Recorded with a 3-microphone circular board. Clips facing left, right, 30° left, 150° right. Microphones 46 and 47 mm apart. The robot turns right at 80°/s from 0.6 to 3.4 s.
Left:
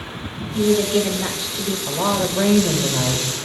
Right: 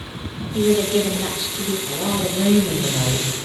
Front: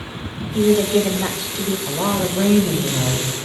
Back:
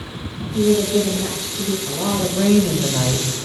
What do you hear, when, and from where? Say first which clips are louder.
0.5 s a woman speaking: even, front 1 dB; 40° right, 1.0 m; by 1.8 s 55° left, 1.0 m
1.9 s a woman speaking: left 6 dB, front 2 dB; 55° left, 1.4 m; by 3.3 s 175° left, 1.4 m